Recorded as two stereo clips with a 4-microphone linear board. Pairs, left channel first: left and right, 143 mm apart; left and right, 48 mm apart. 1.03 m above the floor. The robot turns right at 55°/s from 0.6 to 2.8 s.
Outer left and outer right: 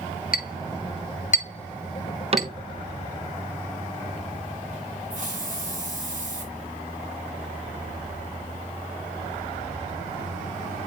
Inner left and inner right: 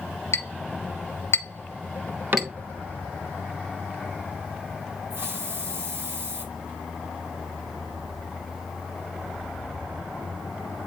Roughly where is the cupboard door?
Right.